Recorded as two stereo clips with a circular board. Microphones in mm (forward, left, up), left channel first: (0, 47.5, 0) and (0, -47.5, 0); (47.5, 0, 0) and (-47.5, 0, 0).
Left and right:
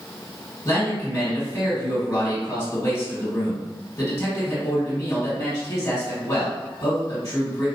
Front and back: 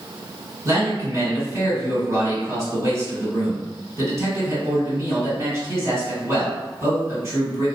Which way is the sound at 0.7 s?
140° left.